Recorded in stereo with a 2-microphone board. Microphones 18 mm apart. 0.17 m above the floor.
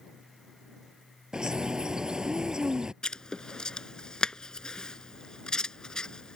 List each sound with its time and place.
1.3 s a bird: 45° right (ahead or behind)
3.0 s writing: 50° left (ahead or behind)